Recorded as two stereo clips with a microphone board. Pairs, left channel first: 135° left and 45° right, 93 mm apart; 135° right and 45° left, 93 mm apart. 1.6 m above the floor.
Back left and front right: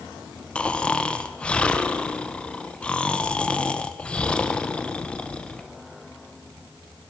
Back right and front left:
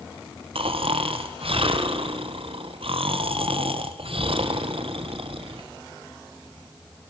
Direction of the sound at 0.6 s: 55° left.